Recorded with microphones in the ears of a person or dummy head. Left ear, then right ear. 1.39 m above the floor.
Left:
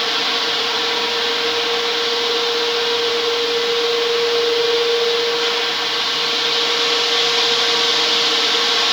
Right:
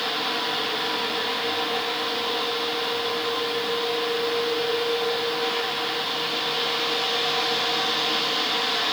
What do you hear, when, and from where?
0.0 s a fan: 75° left (ahead or behind), 0.9 m